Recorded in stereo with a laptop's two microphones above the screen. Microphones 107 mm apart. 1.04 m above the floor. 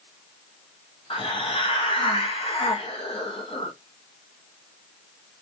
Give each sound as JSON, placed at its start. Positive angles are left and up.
{"t": 1.1, "sound": "a hiss", "side_deg": 55, "distance_m": 0.6}